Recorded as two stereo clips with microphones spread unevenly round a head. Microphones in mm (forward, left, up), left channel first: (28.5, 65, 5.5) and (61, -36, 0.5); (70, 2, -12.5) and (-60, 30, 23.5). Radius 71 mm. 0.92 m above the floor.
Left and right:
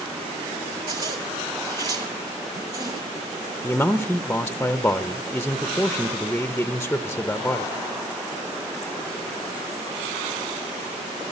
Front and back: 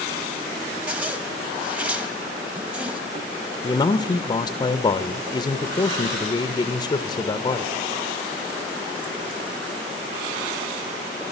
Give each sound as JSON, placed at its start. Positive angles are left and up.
{"t": 0.9, "sound": "a zipper", "azimuth_deg": -125, "distance_m": 1.0}
{"t": 3.6, "sound": "a man speaking", "azimuth_deg": 30, "distance_m": 0.5}